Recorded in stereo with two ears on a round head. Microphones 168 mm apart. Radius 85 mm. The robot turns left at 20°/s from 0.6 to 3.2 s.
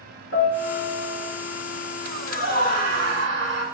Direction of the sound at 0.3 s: 65° left (ahead or behind).